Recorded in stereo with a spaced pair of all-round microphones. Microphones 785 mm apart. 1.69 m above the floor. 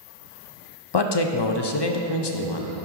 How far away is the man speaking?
About 0.5 m.